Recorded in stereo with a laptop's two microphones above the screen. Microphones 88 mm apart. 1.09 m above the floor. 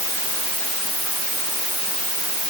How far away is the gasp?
I don't hear a gasp.